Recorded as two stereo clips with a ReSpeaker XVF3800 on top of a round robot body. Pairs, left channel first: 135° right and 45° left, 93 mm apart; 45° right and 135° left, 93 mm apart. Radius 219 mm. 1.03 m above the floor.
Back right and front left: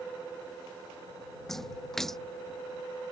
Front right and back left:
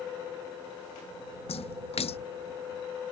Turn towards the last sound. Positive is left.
turn(degrees=-50)